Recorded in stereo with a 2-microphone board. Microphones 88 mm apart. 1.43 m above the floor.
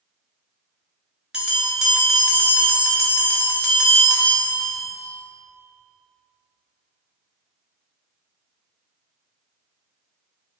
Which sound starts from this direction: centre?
A bell, at 1.3 s.